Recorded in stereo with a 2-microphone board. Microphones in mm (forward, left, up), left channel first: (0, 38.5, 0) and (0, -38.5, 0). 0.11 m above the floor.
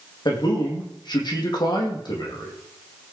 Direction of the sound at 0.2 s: 70° left (ahead or behind).